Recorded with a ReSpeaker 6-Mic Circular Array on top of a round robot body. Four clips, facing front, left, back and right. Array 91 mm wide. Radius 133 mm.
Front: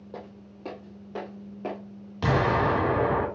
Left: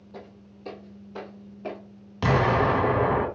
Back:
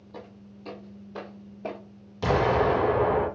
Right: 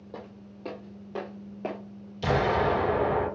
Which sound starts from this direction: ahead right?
Footsteps, at 0.1 s.